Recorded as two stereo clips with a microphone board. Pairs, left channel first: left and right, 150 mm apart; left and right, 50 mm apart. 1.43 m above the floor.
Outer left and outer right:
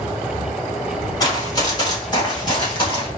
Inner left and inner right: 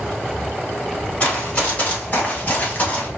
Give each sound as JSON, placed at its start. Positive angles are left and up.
{"t": 1.2, "sound": "running footsteps", "side_deg": 25, "distance_m": 1.8}